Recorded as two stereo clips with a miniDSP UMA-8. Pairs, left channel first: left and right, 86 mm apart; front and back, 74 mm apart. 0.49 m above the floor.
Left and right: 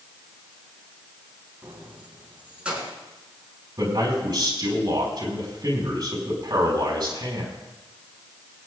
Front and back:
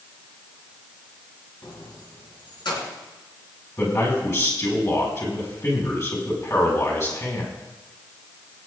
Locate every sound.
1.6 s keys jangling: 20° right, 2.5 m; by 3.0 s 10° right, 4 m
3.8 s a man speaking: 50° right, 5 m